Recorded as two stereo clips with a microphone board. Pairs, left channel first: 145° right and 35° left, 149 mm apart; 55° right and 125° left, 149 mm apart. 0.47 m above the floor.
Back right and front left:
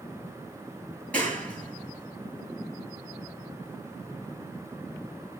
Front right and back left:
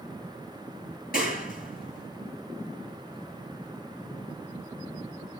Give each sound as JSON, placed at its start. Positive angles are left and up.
{"t": 1.1, "sound": "a clap", "azimuth_deg": -65, "distance_m": 8.0}